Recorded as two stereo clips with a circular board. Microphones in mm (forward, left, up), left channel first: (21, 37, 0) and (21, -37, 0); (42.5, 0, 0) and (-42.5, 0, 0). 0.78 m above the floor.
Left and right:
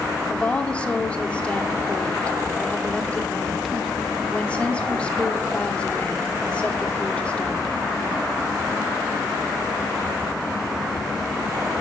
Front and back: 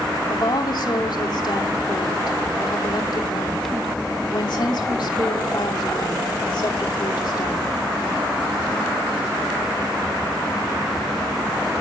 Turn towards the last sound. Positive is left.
turn(degrees=15)